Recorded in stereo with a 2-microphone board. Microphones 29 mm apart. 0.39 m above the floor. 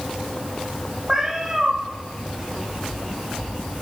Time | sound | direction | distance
1.1 | a cat meowing | 15° right (ahead or behind) | 9.5 m